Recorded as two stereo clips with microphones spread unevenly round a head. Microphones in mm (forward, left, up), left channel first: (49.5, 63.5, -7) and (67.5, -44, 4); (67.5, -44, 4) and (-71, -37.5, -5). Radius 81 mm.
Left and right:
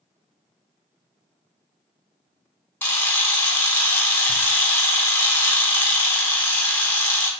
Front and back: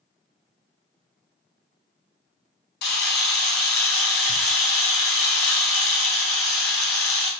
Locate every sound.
2.8 s a camera shutter: 25° left, 1.0 m